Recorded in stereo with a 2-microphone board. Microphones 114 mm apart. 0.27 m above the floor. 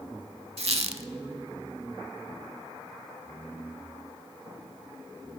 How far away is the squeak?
About 0.6 m.